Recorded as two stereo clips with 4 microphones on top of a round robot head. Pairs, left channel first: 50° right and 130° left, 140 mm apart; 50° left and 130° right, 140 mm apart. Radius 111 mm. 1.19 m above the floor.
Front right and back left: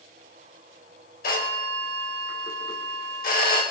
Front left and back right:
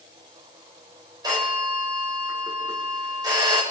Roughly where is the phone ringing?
Right.